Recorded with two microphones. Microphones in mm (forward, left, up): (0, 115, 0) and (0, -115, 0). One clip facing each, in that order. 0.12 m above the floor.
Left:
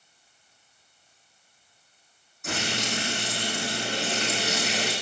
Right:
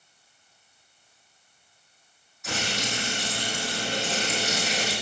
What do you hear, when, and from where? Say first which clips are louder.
2.4 s frying: left 1 dB; 50° left (ahead or behind), 5.5 m